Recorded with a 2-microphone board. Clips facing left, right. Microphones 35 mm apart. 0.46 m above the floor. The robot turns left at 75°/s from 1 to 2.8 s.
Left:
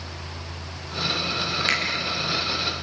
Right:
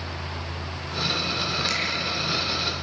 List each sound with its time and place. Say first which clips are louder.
1.7 s a finger snap: left 4 dB; 45° left (ahead or behind), 4 m; by 1.8 s 35° left (ahead or behind), 4 m